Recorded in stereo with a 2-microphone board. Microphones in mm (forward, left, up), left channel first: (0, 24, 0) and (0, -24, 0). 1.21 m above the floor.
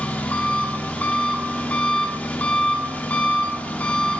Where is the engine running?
30° left (ahead or behind), 0.9 m.